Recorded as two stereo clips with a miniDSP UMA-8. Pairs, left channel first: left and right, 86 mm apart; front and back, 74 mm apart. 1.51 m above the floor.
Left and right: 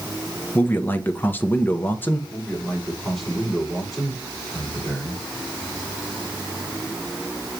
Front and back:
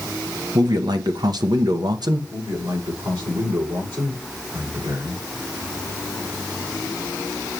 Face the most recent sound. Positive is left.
turn(degrees=180)